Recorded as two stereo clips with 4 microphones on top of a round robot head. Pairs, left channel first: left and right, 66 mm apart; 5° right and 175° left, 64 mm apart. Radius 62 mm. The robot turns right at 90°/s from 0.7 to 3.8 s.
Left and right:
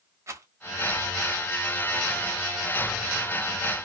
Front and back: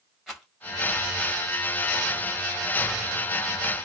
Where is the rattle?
105° right, 1.7 m.